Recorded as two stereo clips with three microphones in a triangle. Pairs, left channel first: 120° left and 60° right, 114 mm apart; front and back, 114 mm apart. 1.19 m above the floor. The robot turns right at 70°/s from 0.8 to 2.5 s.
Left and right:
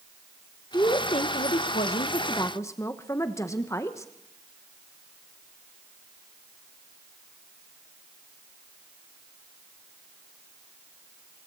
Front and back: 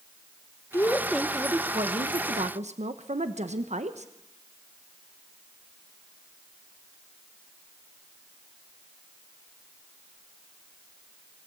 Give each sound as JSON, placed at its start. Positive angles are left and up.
{"t": 0.7, "sound": "a woman speaking", "azimuth_deg": 65, "distance_m": 1.3}